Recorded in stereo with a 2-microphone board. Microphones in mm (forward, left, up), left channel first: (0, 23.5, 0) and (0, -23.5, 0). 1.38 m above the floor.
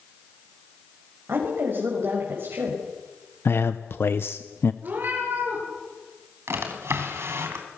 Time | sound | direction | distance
1.3 | a woman speaking | 55° right (ahead or behind) | 6 m
3.5 | a man speaking | 60° left (ahead or behind) | 0.7 m
4.8 | a cat meowing | 45° right (ahead or behind) | 7.5 m
6.5 | a drawer | 70° right (ahead or behind) | 4 m